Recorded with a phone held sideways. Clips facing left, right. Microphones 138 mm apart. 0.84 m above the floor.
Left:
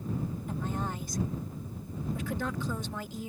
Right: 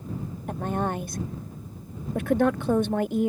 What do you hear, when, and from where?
0.5 s a woman speaking: 60° right (ahead or behind)